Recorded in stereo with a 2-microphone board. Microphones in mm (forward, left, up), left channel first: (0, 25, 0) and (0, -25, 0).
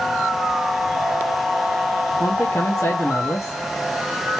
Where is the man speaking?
75° left (ahead or behind), 1.0 m.